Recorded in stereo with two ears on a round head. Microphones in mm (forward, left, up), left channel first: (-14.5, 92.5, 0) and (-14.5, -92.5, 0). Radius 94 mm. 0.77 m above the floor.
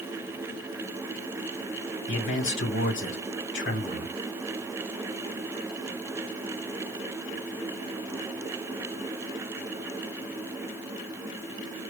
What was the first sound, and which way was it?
A man speaking, 70° left (ahead or behind).